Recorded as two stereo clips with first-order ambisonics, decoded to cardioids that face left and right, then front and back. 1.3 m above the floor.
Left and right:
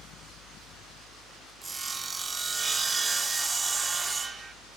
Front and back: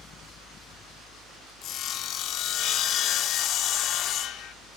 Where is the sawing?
15° right, 1.1 m.